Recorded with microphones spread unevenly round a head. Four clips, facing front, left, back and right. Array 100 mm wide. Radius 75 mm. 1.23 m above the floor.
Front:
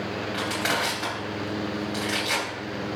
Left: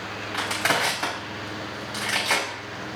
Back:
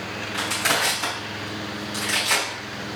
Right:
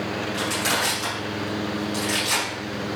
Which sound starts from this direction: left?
Crushing, at 0.3 s.